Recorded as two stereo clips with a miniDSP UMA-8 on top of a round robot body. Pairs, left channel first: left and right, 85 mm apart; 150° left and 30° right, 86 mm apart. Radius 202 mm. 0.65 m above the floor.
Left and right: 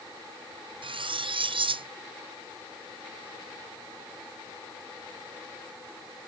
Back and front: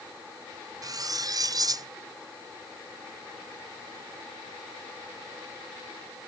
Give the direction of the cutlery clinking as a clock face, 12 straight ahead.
3 o'clock.